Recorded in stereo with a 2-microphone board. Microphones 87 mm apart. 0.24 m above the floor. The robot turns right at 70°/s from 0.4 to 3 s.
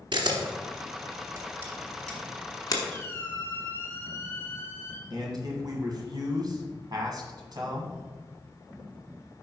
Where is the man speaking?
50° right (ahead or behind), 1.6 m.